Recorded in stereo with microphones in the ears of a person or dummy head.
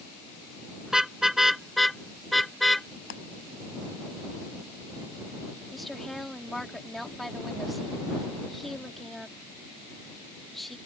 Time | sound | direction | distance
0.9 | a car horn | 5° right (ahead or behind) | ?
3.1 | a clap | 70° left (ahead or behind) | ?
5.7 | a woman speaking | centre (ahead or behind) | ?